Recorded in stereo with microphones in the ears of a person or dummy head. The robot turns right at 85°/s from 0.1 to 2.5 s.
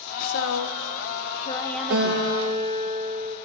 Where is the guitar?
95° right, 1.3 m; by 3.4 s 45° right, 1.3 m.